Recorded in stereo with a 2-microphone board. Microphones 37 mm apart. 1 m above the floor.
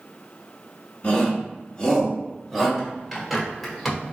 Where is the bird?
Centre (ahead or behind), 1.4 m.